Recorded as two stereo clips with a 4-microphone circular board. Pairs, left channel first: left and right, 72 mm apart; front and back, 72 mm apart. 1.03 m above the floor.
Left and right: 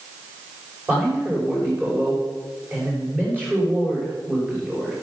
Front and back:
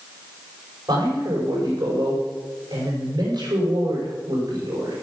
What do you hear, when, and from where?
0.9 s a man speaking: 155° right, 6 m